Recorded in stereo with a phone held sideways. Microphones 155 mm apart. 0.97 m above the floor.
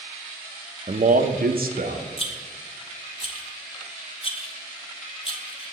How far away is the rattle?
About 0.9 m.